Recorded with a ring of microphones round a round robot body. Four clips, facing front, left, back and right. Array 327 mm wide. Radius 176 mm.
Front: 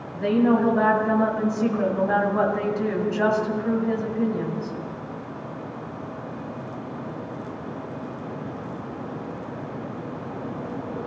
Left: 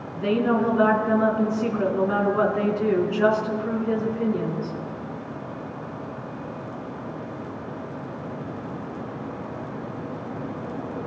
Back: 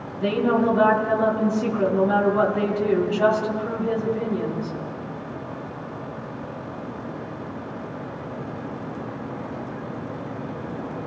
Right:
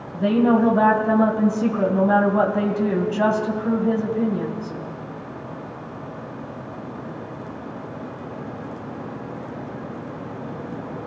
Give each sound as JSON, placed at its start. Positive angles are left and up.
{"t": 0.1, "sound": "a woman speaking", "azimuth_deg": -80, "distance_m": 5.0}